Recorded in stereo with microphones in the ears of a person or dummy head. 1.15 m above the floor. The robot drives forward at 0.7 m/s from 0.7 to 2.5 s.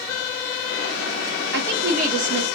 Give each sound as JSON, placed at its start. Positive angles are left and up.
{"t": 1.5, "sound": "a woman speaking", "side_deg": -55, "distance_m": 0.7}